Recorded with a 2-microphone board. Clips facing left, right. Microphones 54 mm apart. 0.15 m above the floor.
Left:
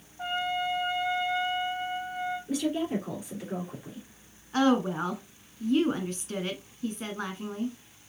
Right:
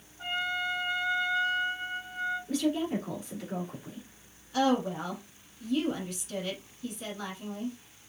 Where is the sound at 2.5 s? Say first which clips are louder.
Even; 10° left (ahead or behind), 2.5 m.